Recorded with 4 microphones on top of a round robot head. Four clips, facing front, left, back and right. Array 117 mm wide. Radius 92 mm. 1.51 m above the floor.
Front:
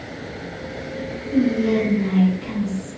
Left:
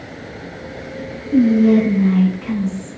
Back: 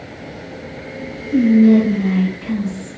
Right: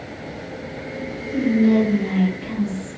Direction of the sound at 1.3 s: 120° left.